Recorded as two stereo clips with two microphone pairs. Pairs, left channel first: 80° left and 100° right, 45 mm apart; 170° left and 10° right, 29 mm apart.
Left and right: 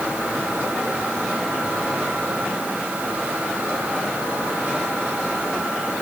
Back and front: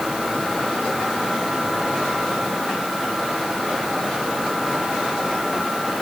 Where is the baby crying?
No baby crying in this recording.